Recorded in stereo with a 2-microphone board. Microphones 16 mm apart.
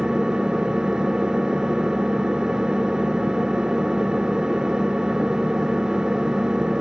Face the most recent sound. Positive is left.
turn(degrees=-60)  # may be behind; listen again after turning